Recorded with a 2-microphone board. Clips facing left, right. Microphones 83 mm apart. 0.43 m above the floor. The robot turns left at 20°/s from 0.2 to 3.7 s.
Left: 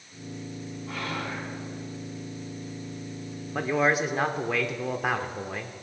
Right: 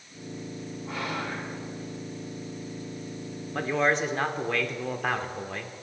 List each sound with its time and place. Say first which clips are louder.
0.9 s whispering: right 1 dB; 5° right (ahead or behind), 4.5 m; by 1.5 s 15° right (ahead or behind), 4.5 m
3.5 s a man speaking: left 1 dB; 5° left (ahead or behind), 0.7 m